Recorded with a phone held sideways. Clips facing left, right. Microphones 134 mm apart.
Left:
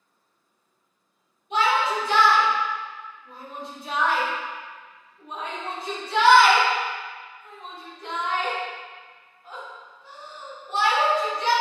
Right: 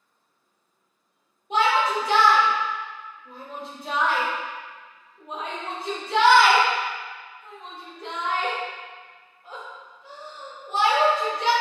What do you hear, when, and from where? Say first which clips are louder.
1.5 s a shout: right 1 dB; 50° right (ahead or behind), 1.4 m